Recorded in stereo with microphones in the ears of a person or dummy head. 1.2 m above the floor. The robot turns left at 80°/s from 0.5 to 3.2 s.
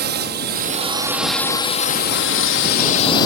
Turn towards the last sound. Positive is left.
turn(degrees=25)